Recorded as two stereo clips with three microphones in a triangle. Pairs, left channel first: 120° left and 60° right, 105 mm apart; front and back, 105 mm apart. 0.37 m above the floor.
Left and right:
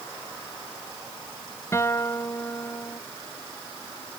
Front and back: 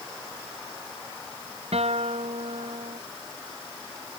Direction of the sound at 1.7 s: 175° right.